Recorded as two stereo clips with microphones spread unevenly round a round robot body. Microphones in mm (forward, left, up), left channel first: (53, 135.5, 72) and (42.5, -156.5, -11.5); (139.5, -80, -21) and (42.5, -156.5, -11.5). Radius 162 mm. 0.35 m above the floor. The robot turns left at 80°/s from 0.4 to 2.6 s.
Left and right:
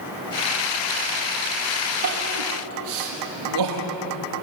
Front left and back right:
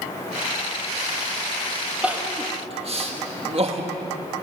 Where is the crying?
60° right, 4.5 m; by 3.9 s 105° right, 4.5 m.